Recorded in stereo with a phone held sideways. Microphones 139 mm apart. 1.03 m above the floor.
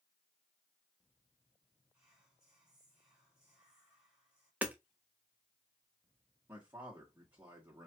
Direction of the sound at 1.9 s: 5° right (ahead or behind).